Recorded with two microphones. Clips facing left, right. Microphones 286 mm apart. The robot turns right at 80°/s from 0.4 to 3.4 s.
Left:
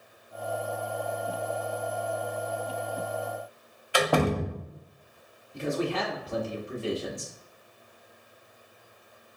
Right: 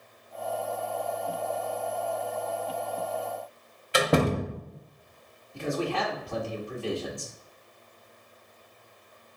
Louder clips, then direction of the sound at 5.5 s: Left 1 dB; 20° left (ahead or behind).